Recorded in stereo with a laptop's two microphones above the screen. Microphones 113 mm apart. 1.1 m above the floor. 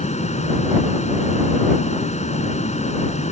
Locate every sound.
0.0 s a fan: 75° left (ahead or behind)